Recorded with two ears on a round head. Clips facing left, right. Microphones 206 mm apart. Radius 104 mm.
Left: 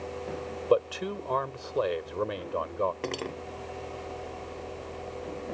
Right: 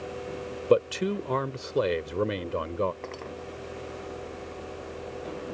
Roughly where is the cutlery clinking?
Left.